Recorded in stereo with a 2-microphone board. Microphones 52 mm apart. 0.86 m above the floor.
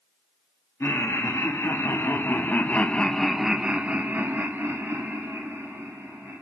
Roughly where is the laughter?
Left.